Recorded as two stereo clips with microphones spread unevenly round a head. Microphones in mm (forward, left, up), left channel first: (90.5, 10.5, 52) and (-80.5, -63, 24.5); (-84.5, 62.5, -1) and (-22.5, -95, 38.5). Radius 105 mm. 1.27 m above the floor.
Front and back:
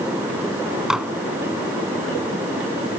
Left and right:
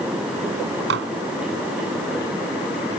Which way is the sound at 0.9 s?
70° right.